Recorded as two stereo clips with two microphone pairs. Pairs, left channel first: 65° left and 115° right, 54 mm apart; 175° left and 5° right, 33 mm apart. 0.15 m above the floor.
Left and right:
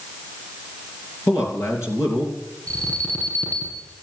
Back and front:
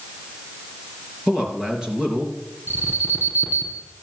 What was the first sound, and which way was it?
A man speaking, 55° left.